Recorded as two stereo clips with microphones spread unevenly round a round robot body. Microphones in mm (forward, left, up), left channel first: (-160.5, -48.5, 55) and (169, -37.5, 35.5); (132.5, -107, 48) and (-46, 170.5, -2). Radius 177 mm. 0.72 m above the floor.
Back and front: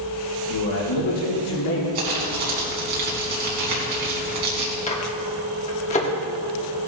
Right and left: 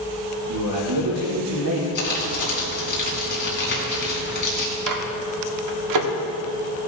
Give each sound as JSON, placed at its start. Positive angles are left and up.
{"t": 0.5, "sound": "a man speaking", "azimuth_deg": 150, "distance_m": 1.9}
{"t": 1.9, "sound": "crumpling", "azimuth_deg": 0, "distance_m": 3.0}
{"t": 4.9, "sound": "a microwave", "azimuth_deg": 110, "distance_m": 1.4}